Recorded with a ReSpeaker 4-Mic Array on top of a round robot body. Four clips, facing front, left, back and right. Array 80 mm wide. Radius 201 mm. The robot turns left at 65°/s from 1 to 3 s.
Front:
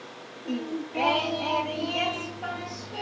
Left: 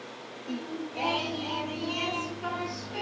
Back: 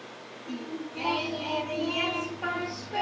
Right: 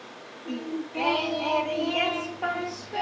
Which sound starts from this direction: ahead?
Singing, at 0.5 s.